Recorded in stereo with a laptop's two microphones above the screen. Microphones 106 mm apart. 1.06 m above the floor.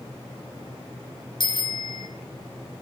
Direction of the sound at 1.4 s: 45° left (ahead or behind).